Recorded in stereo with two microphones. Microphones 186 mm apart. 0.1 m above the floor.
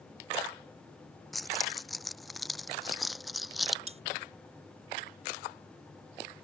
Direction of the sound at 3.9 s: 35° right (ahead or behind).